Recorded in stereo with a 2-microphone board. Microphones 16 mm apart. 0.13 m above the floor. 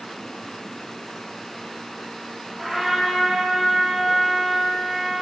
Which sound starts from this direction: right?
A trumpet, at 2.6 s.